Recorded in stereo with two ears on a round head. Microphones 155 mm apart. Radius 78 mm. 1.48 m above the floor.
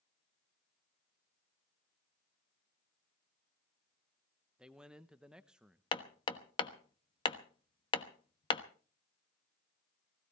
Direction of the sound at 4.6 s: 5° right (ahead or behind).